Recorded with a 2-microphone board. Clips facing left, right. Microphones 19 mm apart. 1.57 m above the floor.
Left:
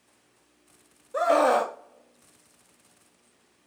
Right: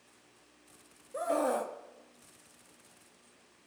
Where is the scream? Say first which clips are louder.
Left 10 dB; 45° left (ahead or behind), 0.5 m.